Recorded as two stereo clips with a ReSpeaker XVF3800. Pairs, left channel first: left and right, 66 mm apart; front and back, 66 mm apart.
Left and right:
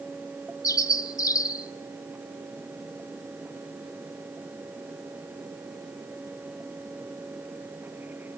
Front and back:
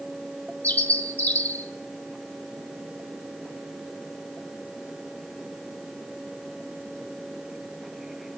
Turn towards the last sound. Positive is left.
turn(degrees=60)